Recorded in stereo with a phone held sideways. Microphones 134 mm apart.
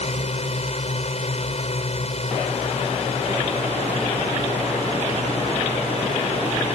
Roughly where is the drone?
Left.